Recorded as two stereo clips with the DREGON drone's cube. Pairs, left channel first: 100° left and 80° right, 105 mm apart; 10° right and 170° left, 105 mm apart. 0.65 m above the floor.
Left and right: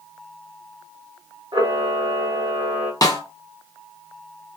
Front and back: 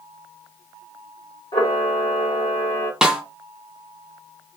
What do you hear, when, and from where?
1.5 s a camera shutter: 35° right, 1.1 m
3.0 s a snare drum: 90° left, 0.6 m